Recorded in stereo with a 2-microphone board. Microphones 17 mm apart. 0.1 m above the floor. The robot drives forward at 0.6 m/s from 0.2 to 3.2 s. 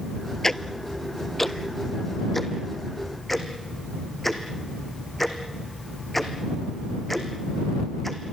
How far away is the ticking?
About 0.7 m.